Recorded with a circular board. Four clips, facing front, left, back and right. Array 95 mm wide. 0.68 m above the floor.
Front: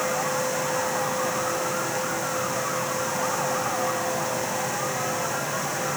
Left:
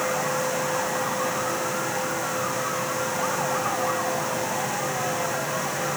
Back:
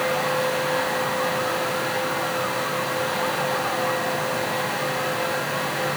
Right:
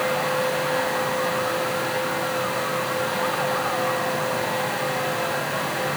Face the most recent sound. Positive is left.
No sound to turn to.